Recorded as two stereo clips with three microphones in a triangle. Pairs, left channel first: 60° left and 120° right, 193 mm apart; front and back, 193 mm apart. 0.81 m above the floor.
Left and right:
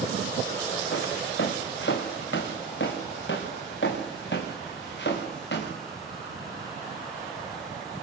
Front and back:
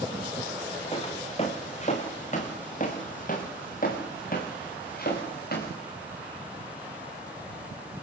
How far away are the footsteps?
About 4.5 m.